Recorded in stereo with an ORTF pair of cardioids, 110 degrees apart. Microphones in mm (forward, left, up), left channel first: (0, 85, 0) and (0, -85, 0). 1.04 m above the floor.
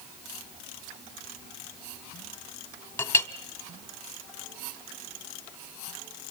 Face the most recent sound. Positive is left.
turn(degrees=10)